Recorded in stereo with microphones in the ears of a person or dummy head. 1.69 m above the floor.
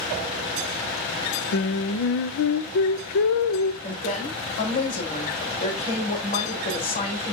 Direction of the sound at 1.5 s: 60° left (ahead or behind).